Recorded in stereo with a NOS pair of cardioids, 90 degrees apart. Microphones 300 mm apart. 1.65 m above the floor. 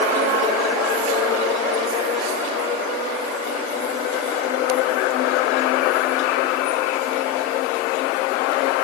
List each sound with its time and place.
Only background noise.